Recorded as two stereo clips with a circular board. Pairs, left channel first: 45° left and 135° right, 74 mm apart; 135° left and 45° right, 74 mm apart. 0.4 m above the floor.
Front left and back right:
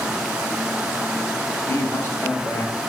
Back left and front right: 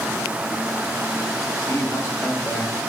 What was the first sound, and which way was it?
A man speaking, 100° left.